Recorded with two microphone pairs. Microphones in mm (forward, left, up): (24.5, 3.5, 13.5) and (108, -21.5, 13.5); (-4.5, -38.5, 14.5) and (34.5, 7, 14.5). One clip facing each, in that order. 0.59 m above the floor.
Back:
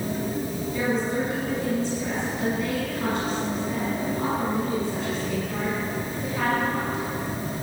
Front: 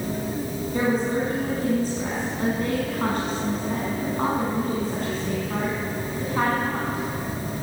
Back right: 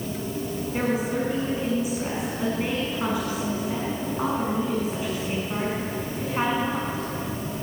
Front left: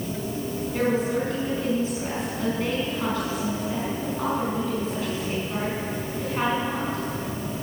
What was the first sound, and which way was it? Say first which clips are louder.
A woman speaking: front 3 dB, front left 2 dB; 60° right.